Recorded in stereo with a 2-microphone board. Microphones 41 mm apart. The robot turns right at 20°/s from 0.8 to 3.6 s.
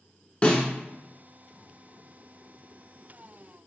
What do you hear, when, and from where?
0.4 s a snare drum: 30° left (ahead or behind), 0.7 m